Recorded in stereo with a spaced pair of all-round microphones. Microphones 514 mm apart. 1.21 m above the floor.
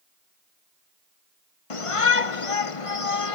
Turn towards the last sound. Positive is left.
turn(degrees=80)